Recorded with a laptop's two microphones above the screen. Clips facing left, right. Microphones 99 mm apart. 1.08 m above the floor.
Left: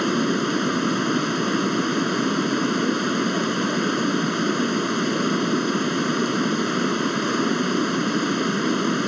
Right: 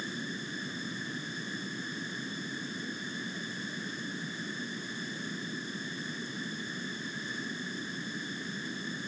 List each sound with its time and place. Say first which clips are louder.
0.0 s running water: left 18 dB; 85° left